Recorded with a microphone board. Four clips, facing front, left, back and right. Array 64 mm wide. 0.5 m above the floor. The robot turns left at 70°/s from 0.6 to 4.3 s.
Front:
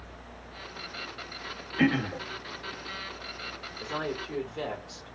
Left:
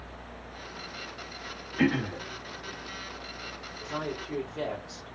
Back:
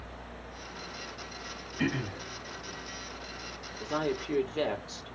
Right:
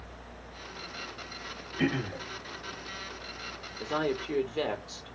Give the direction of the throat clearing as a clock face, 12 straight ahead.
11 o'clock.